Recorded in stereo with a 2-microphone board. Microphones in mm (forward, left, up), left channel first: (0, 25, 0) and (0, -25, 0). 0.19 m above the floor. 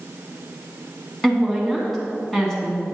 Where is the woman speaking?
5° left (ahead or behind), 2 m.